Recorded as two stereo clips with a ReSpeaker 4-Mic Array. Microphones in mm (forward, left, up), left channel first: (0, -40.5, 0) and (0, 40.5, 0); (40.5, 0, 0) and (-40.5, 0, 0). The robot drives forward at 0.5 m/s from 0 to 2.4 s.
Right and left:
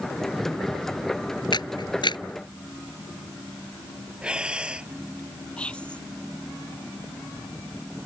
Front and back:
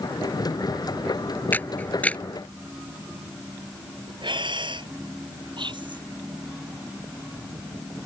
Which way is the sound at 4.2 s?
170° left.